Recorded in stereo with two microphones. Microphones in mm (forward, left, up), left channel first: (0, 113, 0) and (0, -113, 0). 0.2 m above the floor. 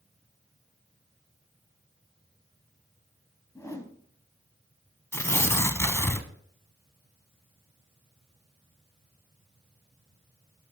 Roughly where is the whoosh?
Centre.